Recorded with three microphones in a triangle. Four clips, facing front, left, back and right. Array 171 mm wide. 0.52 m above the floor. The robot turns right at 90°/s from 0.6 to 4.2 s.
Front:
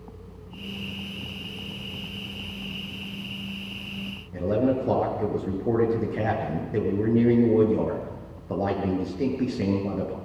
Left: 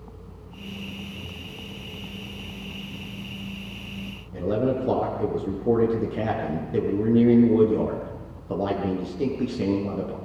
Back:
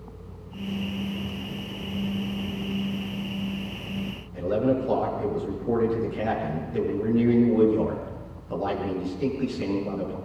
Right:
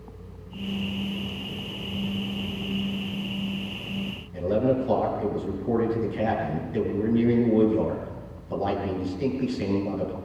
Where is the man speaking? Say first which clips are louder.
Right 1 dB, even; 50° left, 7.5 m.